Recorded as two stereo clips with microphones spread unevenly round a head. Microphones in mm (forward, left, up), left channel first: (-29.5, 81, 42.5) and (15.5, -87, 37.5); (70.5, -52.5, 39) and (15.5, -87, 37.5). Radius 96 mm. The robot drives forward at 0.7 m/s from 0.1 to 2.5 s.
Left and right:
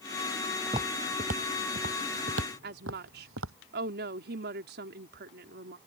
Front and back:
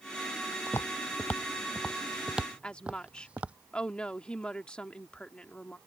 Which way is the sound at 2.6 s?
40° right.